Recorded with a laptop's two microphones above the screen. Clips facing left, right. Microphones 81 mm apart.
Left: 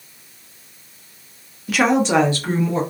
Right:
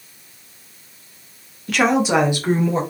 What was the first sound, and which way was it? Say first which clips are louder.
A woman speaking: even; 5° left (ahead or behind).